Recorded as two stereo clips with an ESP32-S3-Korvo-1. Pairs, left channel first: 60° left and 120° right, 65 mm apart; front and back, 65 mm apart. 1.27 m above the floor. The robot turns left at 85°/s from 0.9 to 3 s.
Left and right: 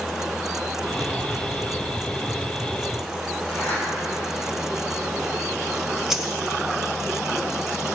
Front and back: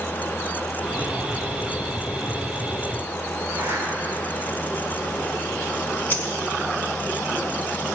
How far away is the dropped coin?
About 1.3 m.